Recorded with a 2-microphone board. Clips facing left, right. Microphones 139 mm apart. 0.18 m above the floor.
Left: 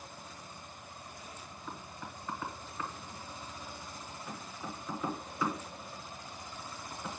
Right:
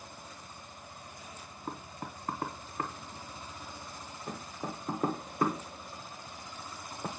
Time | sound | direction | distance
1.7 | knocking | 50° right (ahead or behind) | 1.3 m